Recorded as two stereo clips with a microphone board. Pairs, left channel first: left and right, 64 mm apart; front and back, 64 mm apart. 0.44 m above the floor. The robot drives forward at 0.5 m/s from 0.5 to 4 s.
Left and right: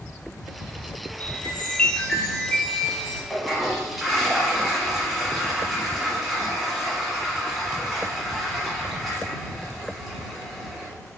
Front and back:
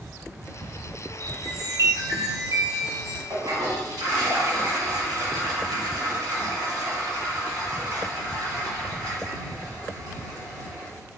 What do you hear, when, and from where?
1.2 s a chime: 155° left, 0.6 m; by 3.2 s 170° left, 1.6 m
3.3 s a toilet flushing: 175° right, 1.1 m; by 10.9 s straight behind, 1.5 m